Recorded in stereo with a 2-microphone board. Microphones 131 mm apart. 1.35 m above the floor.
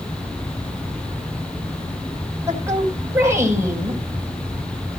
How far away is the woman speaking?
About 6 m.